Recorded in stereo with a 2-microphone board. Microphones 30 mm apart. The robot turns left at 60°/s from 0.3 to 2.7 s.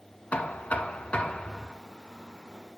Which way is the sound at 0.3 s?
105° left.